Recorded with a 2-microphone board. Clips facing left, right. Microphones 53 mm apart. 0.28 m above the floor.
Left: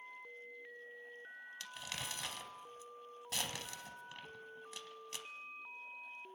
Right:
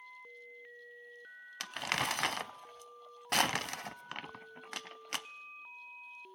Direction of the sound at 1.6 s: 65° right (ahead or behind).